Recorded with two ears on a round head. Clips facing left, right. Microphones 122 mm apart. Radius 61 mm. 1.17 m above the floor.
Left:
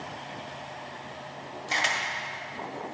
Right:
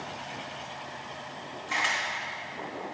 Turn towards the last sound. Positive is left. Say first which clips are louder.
# left 1 dB
turn(degrees=45)  # may be behind; listen again after turning